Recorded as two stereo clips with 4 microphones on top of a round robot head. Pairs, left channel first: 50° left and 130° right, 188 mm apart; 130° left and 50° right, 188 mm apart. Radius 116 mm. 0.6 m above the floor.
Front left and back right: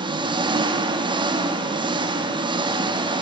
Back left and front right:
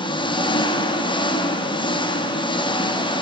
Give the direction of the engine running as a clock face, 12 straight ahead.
6 o'clock.